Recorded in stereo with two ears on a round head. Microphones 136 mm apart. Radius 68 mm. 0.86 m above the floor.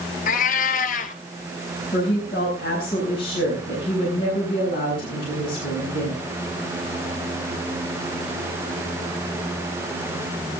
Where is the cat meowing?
55° left (ahead or behind), 1.4 m.